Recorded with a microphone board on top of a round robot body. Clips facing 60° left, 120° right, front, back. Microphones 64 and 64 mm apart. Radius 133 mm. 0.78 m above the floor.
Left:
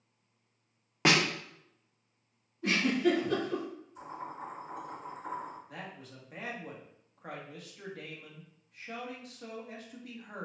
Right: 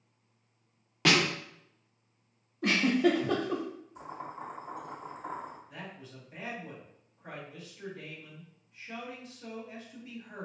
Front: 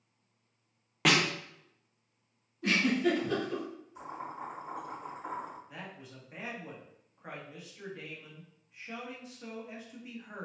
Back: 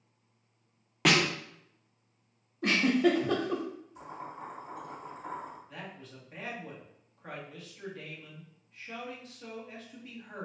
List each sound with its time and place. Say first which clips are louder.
1.1 s a snare drum: even, back 1 dB; 90° left, 1.0 m
2.6 s a giggle: right 2 dB, back 3 dB; 145° right, 0.6 m
4.0 s boiling: left 1 dB, front 1 dB; 70° right, 1.9 m
5.7 s a man speaking: even, back 1 dB; 75° left, 1.4 m